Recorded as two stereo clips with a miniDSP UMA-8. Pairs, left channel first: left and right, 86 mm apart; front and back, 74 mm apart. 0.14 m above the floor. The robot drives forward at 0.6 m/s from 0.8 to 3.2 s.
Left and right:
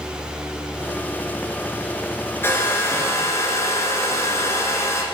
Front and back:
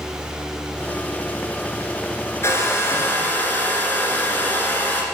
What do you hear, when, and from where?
2.4 s a hair dryer: 35° left, 1.8 m; by 5.0 s 50° left, 1.6 m